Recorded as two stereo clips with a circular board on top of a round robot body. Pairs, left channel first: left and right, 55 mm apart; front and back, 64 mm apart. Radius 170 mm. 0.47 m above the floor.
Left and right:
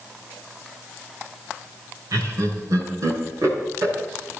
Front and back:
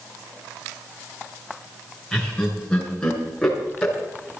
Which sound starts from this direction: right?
Laughter, at 2.1 s.